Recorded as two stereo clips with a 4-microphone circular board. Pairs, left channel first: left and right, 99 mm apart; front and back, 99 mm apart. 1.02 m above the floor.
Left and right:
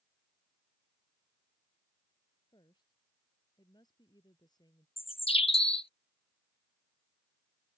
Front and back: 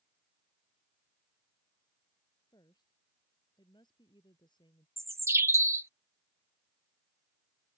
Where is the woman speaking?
45° left.